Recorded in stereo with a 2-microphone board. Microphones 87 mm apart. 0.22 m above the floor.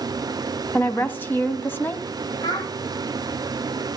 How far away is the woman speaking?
About 1.5 m.